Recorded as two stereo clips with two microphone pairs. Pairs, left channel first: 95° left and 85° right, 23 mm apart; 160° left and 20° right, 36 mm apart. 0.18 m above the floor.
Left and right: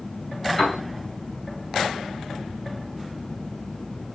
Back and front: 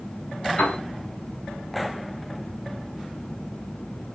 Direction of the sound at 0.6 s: 175° right.